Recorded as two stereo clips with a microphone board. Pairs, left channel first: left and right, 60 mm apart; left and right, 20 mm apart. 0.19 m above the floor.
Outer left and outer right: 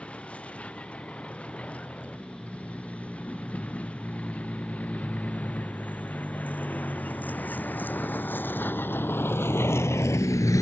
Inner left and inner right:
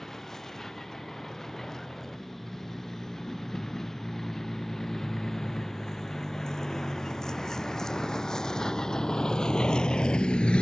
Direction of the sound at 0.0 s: 20° left (ahead or behind).